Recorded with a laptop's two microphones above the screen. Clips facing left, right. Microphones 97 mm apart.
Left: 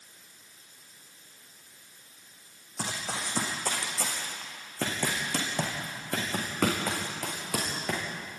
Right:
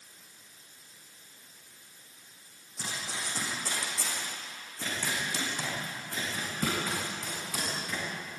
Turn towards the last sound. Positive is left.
turn(degrees=75)  # may be behind; listen again after turning